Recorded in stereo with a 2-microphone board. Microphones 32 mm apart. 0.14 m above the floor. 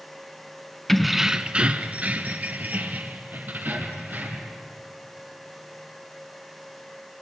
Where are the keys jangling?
10° left (ahead or behind), 0.9 m; by 4.5 s 70° right (ahead or behind), 4 m.